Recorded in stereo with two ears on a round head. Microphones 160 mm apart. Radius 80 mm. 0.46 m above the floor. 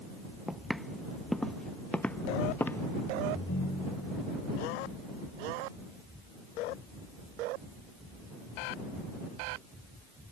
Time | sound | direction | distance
0.5 | footsteps | centre (ahead or behind) | ?
3.3 | a ringtone | 75° left (ahead or behind) | ?